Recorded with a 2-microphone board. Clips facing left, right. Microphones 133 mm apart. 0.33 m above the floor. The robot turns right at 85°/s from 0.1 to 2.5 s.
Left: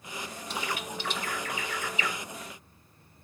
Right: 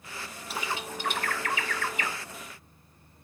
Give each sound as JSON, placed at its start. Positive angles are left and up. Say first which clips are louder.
{"t": 0.5, "sound": "a bird", "louder": "right 1 dB", "side_deg": -5, "distance_m": 1.1}